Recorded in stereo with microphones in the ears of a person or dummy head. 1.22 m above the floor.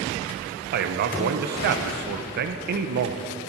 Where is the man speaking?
55° right (ahead or behind), 0.8 m.